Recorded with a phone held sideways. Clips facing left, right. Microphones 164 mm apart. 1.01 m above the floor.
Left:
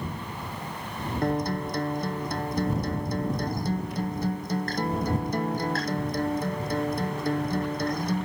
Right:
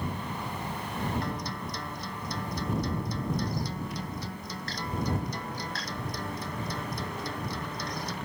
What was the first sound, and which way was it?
A guitar, 50° left (ahead or behind).